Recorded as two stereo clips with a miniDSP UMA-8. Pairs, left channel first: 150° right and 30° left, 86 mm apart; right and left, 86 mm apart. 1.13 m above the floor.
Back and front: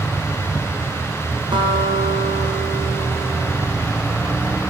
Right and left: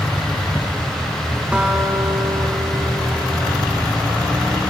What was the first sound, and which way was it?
A guitar, 15° left.